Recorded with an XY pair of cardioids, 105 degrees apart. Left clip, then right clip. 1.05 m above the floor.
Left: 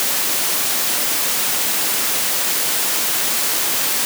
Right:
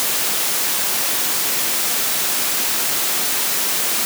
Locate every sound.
Only background noise.